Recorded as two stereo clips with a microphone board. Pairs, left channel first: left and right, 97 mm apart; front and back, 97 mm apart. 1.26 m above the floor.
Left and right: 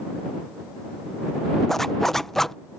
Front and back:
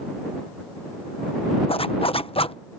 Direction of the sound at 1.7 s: 5° left.